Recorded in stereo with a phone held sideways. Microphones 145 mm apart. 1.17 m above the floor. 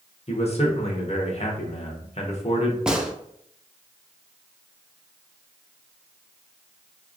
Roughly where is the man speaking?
Left.